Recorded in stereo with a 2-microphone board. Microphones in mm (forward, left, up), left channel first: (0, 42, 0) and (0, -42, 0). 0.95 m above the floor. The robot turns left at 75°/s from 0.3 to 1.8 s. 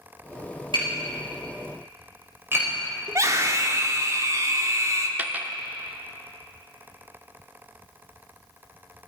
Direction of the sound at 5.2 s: 20° right (ahead or behind).